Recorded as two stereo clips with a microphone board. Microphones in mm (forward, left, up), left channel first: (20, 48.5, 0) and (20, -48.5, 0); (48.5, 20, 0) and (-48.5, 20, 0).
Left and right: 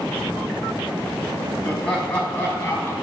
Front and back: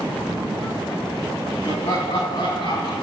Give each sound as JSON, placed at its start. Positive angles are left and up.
{"t": 1.6, "sound": "laughter", "azimuth_deg": 10, "distance_m": 5.0}